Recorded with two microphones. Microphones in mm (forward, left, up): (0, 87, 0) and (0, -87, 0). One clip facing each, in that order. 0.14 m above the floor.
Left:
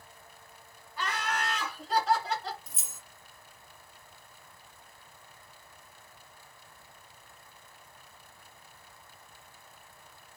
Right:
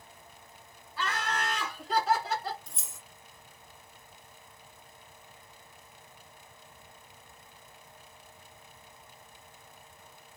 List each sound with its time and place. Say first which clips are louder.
1.0 s laughter: even; 15° left (ahead or behind), 1.7 m; by 2.6 s 10° right (ahead or behind), 1.7 m
2.7 s keys jangling: right 1 dB; 5° left (ahead or behind), 0.7 m